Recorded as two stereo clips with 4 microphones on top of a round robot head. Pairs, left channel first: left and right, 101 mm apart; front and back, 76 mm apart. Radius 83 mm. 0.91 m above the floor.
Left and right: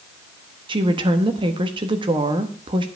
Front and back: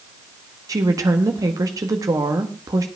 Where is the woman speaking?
130° right, 1.4 m.